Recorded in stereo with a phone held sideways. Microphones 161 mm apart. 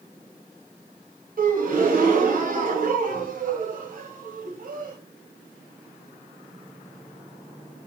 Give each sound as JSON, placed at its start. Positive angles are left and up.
{"t": 1.4, "sound": "a gasp", "side_deg": -60, "distance_m": 0.8}